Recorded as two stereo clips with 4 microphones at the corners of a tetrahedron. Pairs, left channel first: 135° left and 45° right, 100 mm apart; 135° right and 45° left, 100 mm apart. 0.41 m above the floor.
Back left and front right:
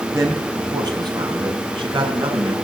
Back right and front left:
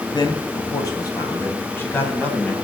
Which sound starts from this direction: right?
A man speaking, at 0.1 s.